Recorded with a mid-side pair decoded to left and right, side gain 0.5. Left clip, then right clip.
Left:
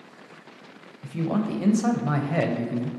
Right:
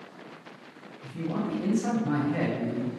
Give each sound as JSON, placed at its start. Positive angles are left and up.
{"t": 1.0, "sound": "a man speaking", "azimuth_deg": 55, "distance_m": 0.6}